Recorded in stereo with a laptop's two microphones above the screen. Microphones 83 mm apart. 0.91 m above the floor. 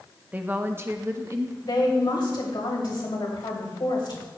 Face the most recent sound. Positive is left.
turn(degrees=70)  # may be behind; listen again after turning